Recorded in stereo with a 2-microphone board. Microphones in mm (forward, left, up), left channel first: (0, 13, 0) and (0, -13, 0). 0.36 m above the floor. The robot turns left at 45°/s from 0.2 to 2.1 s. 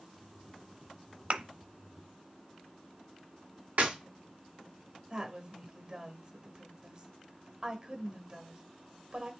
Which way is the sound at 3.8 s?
70° right (ahead or behind).